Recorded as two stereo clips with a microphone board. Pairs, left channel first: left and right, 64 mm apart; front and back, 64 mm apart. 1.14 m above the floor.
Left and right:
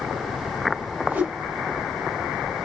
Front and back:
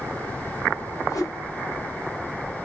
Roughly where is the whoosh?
Ahead right.